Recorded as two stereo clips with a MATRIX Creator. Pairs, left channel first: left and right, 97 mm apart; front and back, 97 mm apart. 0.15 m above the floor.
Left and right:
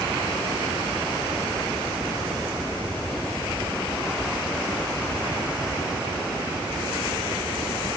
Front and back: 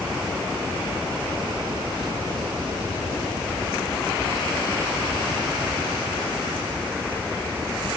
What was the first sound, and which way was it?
Only background noise.